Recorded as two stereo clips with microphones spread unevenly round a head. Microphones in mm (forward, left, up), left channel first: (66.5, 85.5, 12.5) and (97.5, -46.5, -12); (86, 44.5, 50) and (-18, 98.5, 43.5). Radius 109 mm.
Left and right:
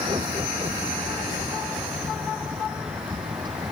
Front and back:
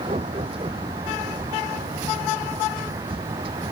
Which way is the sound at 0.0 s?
150° right.